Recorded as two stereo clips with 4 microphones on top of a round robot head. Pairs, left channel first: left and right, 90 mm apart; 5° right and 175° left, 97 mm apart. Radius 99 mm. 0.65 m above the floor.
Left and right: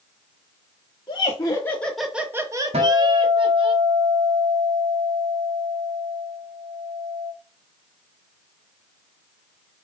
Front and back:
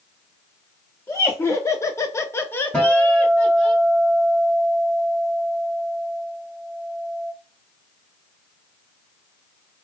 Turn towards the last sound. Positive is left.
turn(degrees=-85)